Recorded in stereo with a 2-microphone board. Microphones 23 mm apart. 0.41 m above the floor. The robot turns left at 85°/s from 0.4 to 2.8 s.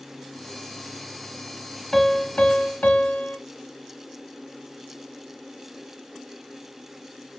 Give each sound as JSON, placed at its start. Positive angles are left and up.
{"t": 1.9, "sound": "a piano", "azimuth_deg": 165, "distance_m": 0.8}